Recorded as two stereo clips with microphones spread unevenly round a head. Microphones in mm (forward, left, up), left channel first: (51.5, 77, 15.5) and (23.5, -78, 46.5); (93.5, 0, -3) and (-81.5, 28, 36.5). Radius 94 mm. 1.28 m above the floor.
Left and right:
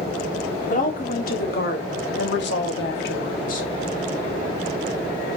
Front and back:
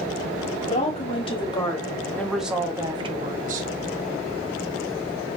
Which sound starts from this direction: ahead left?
A woman speaking, at 0.7 s.